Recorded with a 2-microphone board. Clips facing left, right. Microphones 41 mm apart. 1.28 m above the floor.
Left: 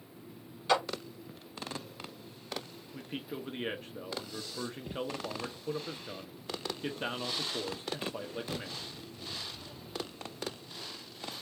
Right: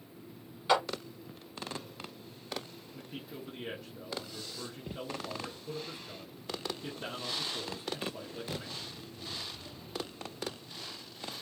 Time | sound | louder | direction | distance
0.7 | a clap | right 1 dB | 10° right (ahead or behind) | 2.5 m
2.9 | a man speaking | left 5 dB | 50° left (ahead or behind) | 0.8 m